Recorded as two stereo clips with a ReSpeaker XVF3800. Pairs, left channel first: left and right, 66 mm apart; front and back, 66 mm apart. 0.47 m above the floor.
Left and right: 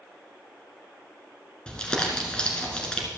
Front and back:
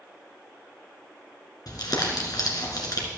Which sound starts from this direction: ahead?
Crumpling, at 1.7 s.